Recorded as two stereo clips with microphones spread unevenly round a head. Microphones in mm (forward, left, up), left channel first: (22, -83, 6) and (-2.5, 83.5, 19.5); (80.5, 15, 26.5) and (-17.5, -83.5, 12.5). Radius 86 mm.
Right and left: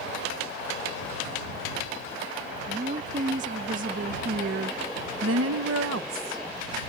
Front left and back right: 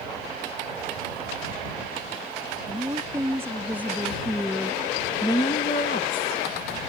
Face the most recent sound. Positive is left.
turn(degrees=65)